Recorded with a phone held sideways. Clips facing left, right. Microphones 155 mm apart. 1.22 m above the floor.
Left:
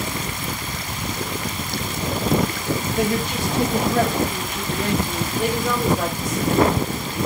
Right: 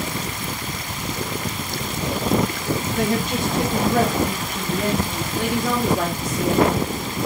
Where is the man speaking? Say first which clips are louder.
Right 1 dB; 50° right (ahead or behind), 6.5 m; by 5.3 s 35° right (ahead or behind), 4.5 m.